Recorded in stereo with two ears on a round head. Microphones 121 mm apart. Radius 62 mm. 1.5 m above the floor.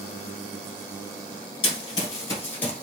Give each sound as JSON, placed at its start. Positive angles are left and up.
{"t": 1.6, "sound": "running footsteps", "side_deg": 35, "distance_m": 1.8}